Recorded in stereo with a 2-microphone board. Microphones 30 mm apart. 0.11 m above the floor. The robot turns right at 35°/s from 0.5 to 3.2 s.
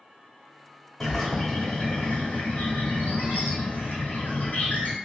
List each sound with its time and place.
1.0 s a bird: 5° left, 0.9 m; by 5.0 s 80° left, 0.9 m